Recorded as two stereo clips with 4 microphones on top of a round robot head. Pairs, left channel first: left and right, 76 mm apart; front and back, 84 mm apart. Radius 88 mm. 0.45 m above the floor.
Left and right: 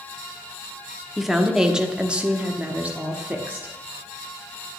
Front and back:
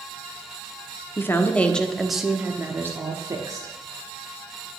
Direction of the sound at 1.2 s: 5° right.